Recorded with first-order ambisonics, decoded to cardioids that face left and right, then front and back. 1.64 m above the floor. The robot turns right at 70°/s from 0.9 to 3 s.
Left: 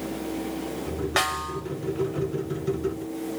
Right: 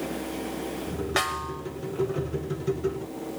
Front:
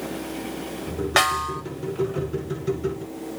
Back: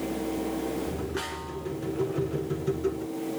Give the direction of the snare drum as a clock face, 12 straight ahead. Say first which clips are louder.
Left 2 dB, front 14 dB; 12 o'clock.